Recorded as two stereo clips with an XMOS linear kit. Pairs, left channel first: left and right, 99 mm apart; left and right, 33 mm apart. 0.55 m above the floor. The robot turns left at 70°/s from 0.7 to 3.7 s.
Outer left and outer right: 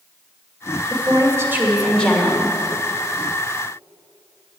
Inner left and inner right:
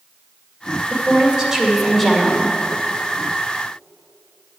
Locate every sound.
0.9 s a woman speaking: 115° right, 2.5 m; by 2.6 s 130° left, 2.5 m